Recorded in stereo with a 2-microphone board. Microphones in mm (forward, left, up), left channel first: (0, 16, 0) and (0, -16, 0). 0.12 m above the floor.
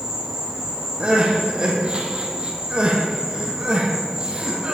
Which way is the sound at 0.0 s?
15° right (ahead or behind).